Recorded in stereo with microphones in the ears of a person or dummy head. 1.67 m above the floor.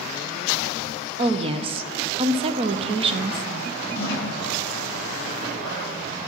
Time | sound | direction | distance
1.2 | a woman speaking | 35° right (ahead or behind) | 0.8 m
4.0 | a snare drum | 20° left (ahead or behind) | 5 m